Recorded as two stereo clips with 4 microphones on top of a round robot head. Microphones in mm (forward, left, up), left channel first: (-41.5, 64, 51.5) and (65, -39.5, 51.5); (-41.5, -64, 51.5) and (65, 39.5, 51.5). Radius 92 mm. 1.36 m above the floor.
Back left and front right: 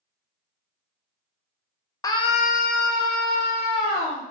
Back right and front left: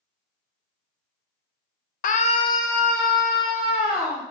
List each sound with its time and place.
2.0 s a scream: 160° right, 0.5 m; by 4.2 s 125° left, 1.6 m